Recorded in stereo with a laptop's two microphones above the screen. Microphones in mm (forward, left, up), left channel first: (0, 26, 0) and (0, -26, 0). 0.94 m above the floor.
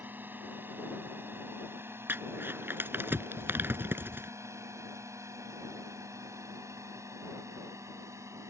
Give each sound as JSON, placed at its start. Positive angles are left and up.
{"t": 0.0, "sound": "a drone", "side_deg": -40}
{"t": 2.1, "sound": "crumpling", "side_deg": -45}